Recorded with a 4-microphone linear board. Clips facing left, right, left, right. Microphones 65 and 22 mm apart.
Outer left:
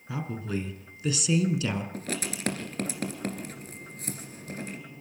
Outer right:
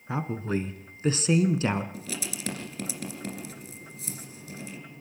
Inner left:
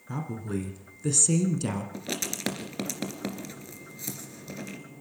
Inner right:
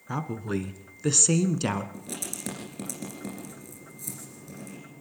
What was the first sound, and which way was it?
A woman speaking, 35° right (ahead or behind).